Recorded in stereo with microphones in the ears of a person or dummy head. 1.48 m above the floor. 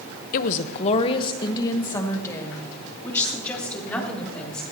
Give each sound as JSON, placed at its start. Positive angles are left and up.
{"t": 0.3, "sound": "a woman speaking", "side_deg": 50, "distance_m": 0.9}